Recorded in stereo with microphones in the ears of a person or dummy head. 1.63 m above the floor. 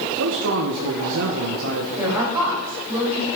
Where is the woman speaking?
15° right (ahead or behind), 6 m.